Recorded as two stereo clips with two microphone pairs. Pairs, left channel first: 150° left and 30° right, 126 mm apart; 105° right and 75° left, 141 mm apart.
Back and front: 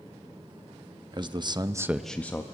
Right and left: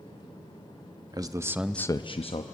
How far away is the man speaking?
About 1.1 m.